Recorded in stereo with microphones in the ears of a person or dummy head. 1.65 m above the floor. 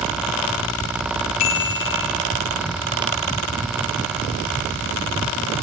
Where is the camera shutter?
No camera shutter in this recording.